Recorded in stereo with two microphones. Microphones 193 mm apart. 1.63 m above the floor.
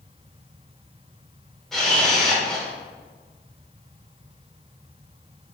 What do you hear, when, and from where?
1.7 s a camera shutter: centre (ahead or behind), 2 m